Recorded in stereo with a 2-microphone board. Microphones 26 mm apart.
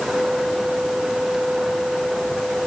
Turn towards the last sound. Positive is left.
No sound to turn to.